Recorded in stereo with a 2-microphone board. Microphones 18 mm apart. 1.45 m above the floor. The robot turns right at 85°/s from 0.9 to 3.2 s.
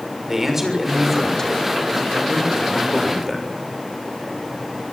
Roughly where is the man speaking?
Ahead.